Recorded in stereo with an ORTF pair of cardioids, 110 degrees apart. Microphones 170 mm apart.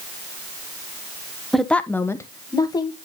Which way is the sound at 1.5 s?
Straight ahead.